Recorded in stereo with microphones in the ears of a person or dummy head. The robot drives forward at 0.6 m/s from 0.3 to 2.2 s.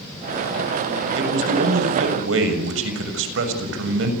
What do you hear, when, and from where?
1.2 s a man speaking: 85° right, 6.5 m; by 4.1 s 90° right, 6.5 m